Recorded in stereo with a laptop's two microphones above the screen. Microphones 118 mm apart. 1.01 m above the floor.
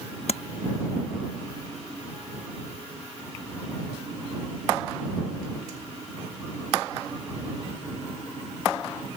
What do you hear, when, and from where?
0.3 s tapping: 65° left (ahead or behind)